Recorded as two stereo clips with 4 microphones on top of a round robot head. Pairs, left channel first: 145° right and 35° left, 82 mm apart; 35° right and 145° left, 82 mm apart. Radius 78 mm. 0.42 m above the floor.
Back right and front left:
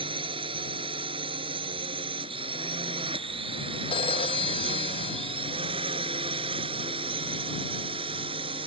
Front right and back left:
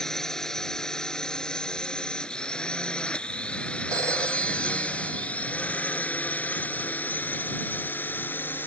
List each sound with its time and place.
0.0 s a drone: 50° left; by 8.7 s 30° left
3.9 s a phone ringing: 165° right